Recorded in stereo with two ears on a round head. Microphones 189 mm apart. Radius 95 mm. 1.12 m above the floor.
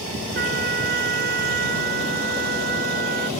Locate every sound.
0.3 s a trumpet: 45° right (ahead or behind)